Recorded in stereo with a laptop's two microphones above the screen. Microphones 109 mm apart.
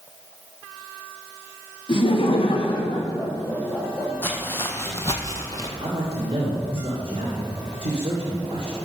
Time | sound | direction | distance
1.9 | laughter | 50° left (ahead or behind) | 1.1 m
4.2 | footsteps | 20° left (ahead or behind) | 2 m
5.8 | a man speaking | 60° right (ahead or behind) | 2 m